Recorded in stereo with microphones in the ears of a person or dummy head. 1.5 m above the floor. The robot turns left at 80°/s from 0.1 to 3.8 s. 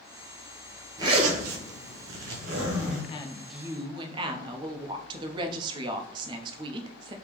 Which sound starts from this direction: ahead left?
A woman speaking, at 3.1 s.